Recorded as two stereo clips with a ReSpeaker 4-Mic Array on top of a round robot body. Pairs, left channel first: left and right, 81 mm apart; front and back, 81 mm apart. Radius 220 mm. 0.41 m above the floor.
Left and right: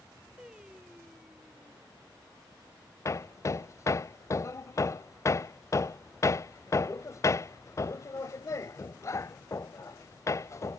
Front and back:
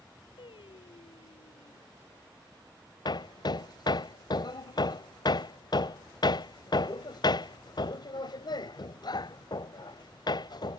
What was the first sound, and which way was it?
Singing, 10° right.